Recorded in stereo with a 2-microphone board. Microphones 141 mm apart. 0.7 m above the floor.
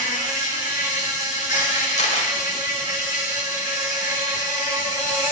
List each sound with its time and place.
0.0 s an insect: 30° right (ahead or behind), 4 m
2.0 s a camera shutter: 55° left (ahead or behind), 2 m